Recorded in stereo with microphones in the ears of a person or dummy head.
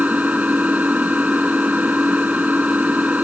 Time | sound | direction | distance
0.0 | an engine running | 10° right (ahead or behind) | ?